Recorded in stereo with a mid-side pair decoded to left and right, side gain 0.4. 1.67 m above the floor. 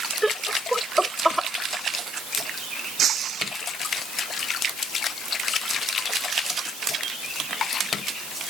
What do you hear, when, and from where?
0.2 s laughter: 10° right; by 1.5 s 5° right
3.0 s breaking glass: 65° right